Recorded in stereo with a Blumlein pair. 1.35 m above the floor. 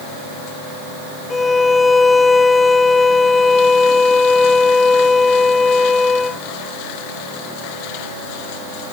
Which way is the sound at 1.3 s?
10° left.